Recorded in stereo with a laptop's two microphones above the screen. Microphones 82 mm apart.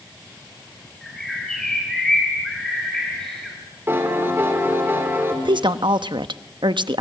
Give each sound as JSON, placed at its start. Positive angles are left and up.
{"t": 1.0, "sound": "a bird", "side_deg": 5, "distance_m": 5.0}
{"t": 3.9, "sound": "a piano", "side_deg": -30, "distance_m": 3.5}
{"t": 5.5, "sound": "a woman speaking", "side_deg": -75, "distance_m": 0.9}